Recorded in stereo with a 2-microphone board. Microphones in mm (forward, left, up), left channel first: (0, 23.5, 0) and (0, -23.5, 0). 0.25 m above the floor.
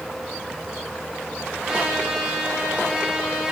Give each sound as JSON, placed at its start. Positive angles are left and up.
{"t": 1.6, "sound": "a trumpet", "side_deg": -10, "distance_m": 7.5}